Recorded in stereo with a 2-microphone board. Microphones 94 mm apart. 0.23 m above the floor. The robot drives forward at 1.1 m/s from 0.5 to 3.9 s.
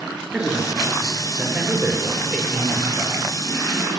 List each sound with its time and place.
0.3 s a man speaking: 10° right (ahead or behind), 4.5 m; by 3.3 s 5° right (ahead or behind), 7 m